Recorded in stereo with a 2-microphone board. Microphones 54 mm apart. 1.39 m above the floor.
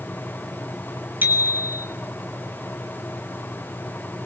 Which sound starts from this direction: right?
A bicycle bell, at 1.2 s.